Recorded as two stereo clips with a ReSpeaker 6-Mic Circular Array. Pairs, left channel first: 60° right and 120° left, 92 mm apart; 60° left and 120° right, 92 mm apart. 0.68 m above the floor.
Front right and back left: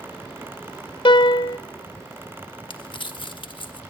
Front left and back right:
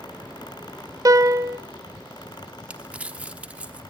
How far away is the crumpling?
About 1.1 m.